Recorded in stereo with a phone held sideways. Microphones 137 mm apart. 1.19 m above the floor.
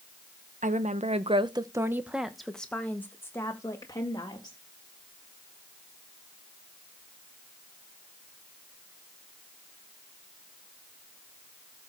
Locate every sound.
0.6 s a woman speaking: 65° right (ahead or behind), 1.0 m; by 4.6 s 25° left (ahead or behind), 2.5 m